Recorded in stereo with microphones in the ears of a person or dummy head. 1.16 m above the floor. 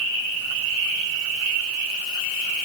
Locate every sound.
Only background noise.